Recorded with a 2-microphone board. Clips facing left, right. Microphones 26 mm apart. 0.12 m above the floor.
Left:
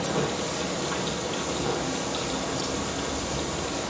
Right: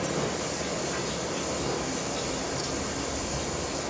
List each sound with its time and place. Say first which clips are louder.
0.0 s running water: left 2 dB; 65° left (ahead or behind), 3.5 m